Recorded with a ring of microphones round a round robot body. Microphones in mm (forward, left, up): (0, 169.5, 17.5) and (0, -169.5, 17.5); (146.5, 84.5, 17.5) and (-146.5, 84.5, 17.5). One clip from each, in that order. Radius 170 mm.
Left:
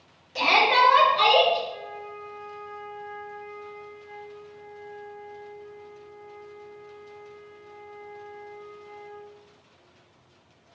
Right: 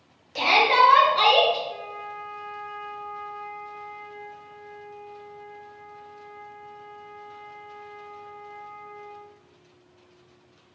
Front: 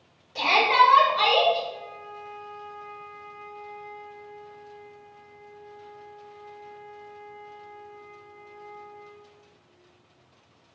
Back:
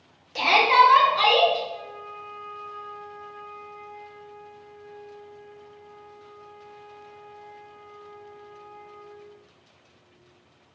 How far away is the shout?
About 1.2 m.